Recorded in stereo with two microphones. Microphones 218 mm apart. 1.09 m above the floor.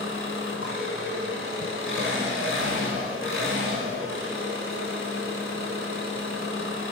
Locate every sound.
0.0 s an engine running: 65° left (ahead or behind), 6.5 m